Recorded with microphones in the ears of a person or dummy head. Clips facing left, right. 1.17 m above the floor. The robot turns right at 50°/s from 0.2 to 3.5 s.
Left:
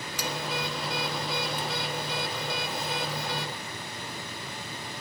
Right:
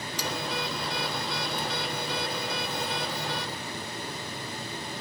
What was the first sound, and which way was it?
Cutlery clinking, 40° left (ahead or behind).